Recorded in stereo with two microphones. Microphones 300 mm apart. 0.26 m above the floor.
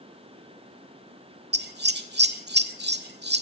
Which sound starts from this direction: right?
Scissors, at 1.5 s.